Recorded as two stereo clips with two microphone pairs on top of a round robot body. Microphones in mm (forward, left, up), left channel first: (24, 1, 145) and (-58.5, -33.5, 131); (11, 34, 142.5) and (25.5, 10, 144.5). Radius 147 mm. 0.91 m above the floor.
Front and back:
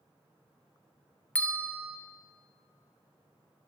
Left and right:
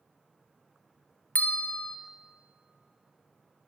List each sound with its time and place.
1.4 s a bell: 100° left, 0.5 m